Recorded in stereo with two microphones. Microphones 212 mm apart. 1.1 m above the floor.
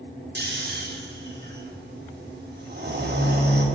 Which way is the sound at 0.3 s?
50° right (ahead or behind).